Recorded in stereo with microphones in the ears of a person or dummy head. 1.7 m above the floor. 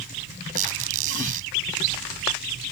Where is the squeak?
45° right (ahead or behind).